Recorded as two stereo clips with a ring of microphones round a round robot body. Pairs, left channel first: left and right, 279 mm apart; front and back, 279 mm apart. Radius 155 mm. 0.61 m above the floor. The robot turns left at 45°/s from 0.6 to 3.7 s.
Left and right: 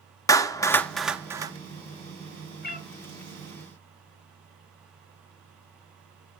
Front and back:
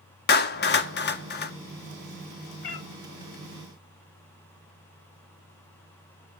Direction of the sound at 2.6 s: 35° left.